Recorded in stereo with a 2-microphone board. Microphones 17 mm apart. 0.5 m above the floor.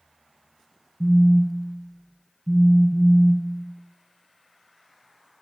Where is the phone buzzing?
10° left (ahead or behind), 0.7 m.